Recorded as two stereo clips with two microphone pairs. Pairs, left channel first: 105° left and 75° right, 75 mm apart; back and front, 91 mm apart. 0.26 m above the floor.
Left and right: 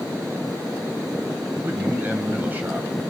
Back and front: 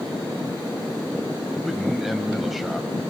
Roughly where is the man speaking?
Right.